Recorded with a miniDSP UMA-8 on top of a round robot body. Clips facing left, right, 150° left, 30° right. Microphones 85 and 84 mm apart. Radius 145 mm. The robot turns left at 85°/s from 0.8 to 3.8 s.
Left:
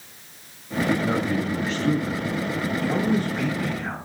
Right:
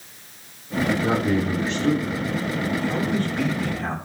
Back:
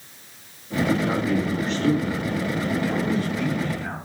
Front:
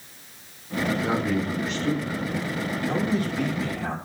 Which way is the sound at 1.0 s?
100° right.